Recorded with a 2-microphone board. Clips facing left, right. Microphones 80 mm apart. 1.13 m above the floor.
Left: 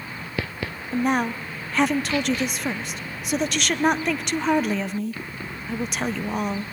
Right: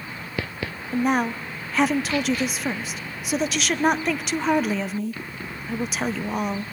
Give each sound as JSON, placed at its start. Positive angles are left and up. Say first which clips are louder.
{"t": 0.9, "sound": "a woman speaking", "louder": "right 1 dB", "side_deg": 0, "distance_m": 0.6}